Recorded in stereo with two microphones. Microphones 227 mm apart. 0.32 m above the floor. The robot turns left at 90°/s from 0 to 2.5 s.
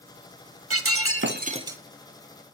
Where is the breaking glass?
75° right, 0.6 m; by 1.8 s 175° right, 0.6 m.